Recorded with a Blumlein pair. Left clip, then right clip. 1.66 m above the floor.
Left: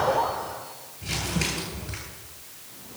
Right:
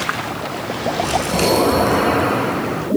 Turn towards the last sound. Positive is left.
turn(degrees=-40)